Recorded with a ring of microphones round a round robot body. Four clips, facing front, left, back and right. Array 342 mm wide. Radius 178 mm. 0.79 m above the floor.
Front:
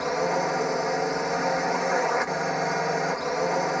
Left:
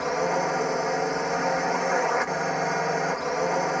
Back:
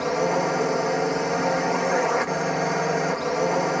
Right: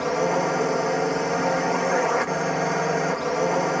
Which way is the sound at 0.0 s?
130° right.